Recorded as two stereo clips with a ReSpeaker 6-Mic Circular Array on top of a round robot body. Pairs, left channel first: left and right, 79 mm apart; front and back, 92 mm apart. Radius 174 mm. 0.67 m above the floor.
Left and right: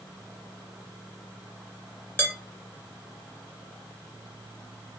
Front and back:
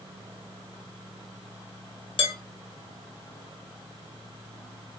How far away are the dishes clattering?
About 1.3 m.